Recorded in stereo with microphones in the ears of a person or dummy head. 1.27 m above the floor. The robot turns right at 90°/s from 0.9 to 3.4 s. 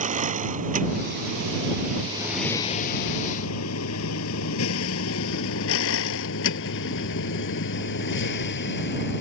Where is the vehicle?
40° right (ahead or behind); by 9.2 s 60° left (ahead or behind).